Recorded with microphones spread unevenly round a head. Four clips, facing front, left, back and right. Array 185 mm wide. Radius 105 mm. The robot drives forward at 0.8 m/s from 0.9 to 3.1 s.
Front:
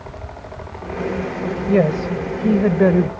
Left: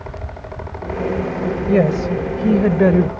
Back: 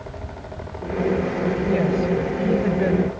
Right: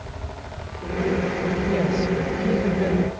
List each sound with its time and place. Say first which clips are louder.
1.7 s a woman speaking: left 8 dB, front 6 dB; 30° left; by 3.1 s 35° left